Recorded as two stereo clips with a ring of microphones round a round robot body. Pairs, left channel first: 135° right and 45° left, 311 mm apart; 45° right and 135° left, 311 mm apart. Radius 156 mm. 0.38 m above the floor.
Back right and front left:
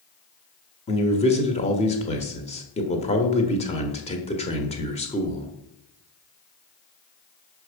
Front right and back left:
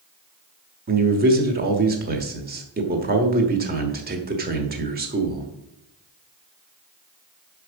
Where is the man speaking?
170° left, 1.3 m.